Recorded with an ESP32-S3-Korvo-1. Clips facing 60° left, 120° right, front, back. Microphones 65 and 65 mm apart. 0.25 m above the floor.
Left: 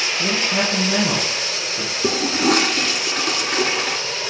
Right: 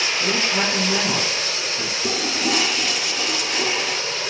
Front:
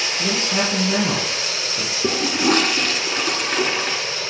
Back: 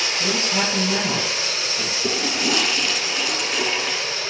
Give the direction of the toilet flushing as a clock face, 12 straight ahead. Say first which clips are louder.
Left 6 dB, front 5 dB; 11 o'clock.